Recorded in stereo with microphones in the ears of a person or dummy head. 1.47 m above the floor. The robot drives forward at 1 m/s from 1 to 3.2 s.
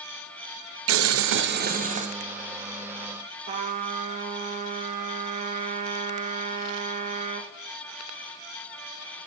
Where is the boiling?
70° right (ahead or behind), 0.8 m; by 2.1 s 35° right (ahead or behind), 1.3 m.